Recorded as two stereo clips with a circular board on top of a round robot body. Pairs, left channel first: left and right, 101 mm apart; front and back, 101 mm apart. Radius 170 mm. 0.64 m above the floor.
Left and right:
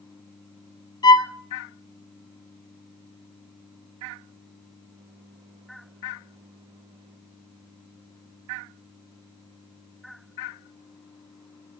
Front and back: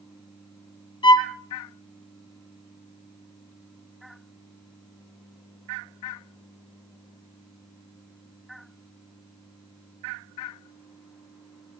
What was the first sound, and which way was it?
A violin, 45° left.